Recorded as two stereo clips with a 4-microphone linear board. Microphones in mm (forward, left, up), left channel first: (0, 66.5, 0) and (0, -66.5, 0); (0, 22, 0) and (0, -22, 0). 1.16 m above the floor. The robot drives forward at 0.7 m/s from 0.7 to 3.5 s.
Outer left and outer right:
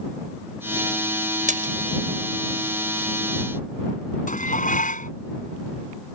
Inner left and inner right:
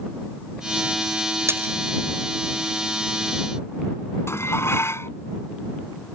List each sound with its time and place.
1.5 s a splash: 75° right (ahead or behind)
4.3 s dishes clattering: 80° left